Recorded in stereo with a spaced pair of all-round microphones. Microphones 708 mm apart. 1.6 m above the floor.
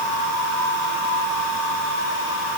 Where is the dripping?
No dripping in this recording.